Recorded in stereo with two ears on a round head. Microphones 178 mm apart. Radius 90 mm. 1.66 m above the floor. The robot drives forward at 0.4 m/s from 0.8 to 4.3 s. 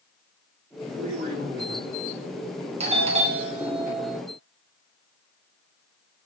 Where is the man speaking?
40° right (ahead or behind), 5 m; by 1.9 s 35° right (ahead or behind), 5.5 m.